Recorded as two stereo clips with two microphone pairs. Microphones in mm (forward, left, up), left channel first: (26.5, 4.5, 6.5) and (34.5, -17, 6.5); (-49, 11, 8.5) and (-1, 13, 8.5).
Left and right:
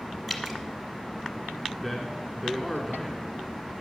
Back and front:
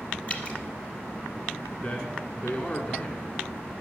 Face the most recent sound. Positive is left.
turn(degrees=-175)